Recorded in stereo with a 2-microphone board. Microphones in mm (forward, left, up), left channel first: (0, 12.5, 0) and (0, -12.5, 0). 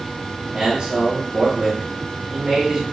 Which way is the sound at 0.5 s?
45° right (ahead or behind).